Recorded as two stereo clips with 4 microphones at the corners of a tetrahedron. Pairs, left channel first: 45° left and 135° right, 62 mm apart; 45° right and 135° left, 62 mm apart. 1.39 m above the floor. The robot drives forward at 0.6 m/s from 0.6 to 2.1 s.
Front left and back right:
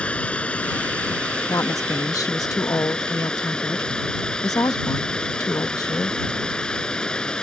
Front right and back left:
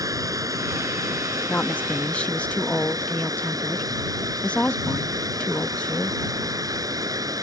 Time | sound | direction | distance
0.0 | running water | 115° left | ?
1.5 | a woman speaking | 20° left | ?